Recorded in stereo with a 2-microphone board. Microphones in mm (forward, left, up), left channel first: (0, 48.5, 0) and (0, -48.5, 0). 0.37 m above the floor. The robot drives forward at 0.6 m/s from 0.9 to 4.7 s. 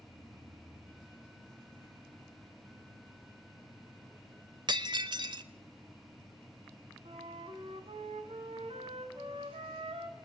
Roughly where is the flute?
Right.